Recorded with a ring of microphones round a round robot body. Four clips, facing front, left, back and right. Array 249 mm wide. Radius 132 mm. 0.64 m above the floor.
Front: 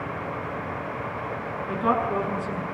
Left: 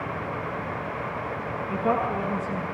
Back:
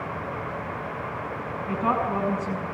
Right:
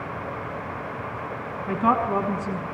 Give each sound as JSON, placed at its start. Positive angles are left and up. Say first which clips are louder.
{"t": 1.7, "sound": "a woman speaking", "louder": "right 4 dB, front 1 dB", "azimuth_deg": -100, "distance_m": 6.5}